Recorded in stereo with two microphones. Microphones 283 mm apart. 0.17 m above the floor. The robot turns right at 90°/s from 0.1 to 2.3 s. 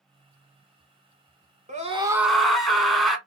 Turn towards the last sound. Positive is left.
turn(degrees=0)